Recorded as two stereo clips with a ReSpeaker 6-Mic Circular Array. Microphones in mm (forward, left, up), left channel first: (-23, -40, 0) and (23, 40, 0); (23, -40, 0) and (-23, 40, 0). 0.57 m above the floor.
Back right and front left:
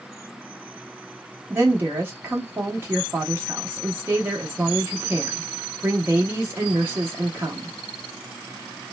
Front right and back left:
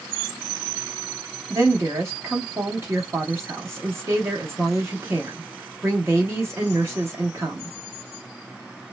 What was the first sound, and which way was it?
A woman speaking, 100° left.